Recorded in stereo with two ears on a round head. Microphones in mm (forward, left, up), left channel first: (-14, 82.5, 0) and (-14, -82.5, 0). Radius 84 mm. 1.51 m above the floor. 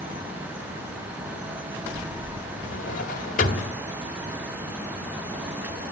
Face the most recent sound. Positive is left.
turn(degrees=45)  # may be behind; listen again after turning